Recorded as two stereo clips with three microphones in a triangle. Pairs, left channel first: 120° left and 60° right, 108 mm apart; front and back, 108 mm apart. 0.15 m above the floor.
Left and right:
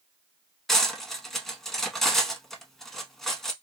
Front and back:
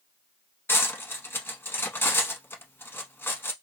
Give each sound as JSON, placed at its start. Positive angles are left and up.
{"t": 0.7, "sound": "cutlery clinking", "azimuth_deg": 40, "distance_m": 0.6}